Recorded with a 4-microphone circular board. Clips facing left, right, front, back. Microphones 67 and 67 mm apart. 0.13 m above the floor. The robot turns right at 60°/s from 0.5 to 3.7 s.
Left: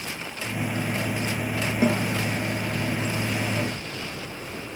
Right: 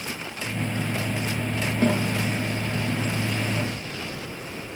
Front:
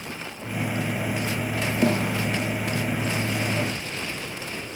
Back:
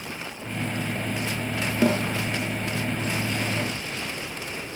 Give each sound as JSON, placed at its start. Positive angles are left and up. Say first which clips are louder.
{"t": 1.8, "sound": "a snare drum", "louder": "even, back 1 dB", "azimuth_deg": 170, "distance_m": 7.0}